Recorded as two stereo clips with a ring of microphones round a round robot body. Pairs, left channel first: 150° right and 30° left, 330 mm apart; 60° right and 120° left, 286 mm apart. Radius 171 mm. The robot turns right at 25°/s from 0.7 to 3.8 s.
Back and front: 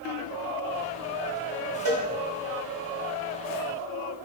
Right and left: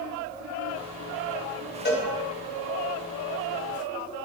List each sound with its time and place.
1.9 s a cowbell: 5° right, 2.0 m; by 2.1 s straight ahead, 2.0 m